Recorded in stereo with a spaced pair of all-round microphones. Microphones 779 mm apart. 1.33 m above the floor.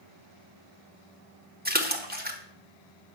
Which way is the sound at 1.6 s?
10° right (ahead or behind).